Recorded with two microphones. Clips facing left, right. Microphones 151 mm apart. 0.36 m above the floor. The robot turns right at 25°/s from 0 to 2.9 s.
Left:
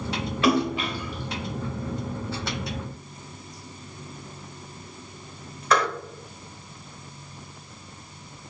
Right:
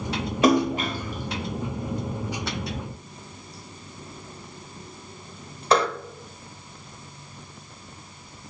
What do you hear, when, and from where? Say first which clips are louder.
0.4 s a splash: right 3 dB; 45° right (ahead or behind), 0.8 m; by 5.9 s 30° right (ahead or behind), 0.8 m